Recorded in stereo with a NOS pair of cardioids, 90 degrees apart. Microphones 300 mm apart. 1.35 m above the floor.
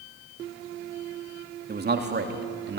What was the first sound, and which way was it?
A man speaking, 30° right.